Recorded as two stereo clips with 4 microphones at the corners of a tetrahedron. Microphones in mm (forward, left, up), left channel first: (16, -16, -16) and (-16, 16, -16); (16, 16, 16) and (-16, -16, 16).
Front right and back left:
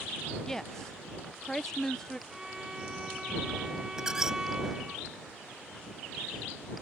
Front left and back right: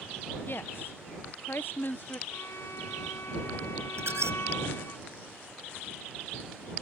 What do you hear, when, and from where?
0.5 s a woman speaking: 35° left
2.3 s a violin: 60° left
4.0 s a squeak: 145° right